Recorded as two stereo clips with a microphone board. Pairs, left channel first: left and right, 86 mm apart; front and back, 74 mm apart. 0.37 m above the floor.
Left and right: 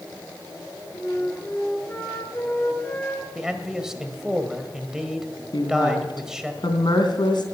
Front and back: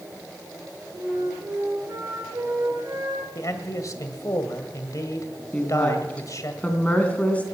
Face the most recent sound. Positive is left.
turn(degrees=70)